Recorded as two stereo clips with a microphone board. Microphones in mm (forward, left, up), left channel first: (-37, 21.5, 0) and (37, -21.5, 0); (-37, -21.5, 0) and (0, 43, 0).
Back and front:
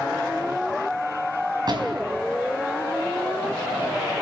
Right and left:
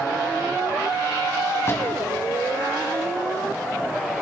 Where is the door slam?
65° right, 4.5 m.